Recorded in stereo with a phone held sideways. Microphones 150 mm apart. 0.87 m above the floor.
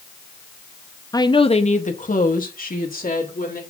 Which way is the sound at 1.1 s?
25° left (ahead or behind).